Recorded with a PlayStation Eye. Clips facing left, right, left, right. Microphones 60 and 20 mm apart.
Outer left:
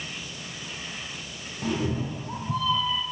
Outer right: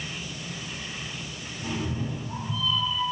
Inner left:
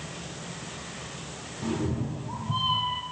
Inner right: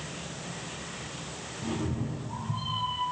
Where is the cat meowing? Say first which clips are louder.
Outer left 4 dB, inner left 3 dB; 50° left (ahead or behind), 3 m; by 3.0 s 60° left (ahead or behind), 1.9 m.